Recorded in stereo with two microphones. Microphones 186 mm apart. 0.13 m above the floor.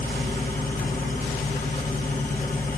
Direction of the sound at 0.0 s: 50° left (ahead or behind).